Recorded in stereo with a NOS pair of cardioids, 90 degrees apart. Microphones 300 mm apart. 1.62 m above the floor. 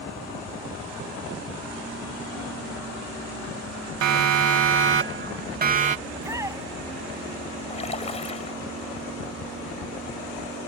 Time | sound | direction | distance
4.0 | a siren | 65° right | ?
6.1 | a shout | 10° right | ?
7.7 | a splash | 20° left | ?